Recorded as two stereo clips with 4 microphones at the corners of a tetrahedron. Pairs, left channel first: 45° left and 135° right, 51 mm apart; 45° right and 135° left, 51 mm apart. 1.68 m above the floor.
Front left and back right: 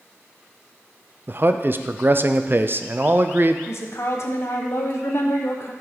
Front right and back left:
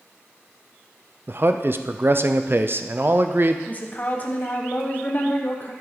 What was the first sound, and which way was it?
A man speaking, straight behind.